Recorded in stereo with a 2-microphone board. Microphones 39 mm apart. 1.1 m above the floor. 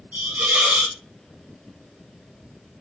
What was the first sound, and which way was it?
A hiss, 45° right (ahead or behind).